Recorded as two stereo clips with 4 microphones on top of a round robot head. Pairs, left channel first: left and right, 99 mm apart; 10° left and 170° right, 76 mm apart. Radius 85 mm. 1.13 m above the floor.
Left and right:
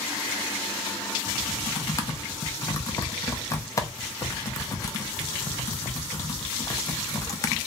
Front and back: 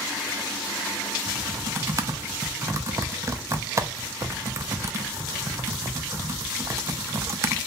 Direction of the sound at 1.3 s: 145° left.